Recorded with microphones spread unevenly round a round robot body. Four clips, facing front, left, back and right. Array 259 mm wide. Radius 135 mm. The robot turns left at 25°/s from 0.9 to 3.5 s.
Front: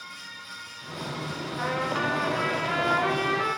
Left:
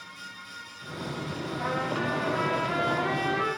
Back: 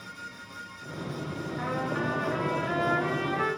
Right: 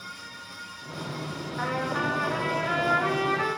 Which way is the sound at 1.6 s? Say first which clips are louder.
Right 2 dB, front 3 dB; 70° right.